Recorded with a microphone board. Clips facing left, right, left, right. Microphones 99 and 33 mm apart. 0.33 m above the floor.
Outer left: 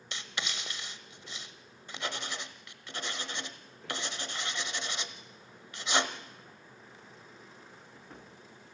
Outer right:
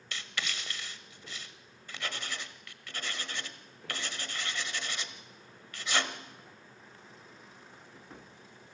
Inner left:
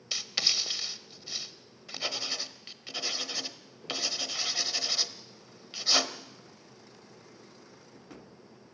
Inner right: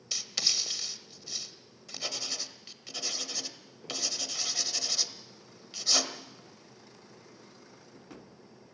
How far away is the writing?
About 1.2 m.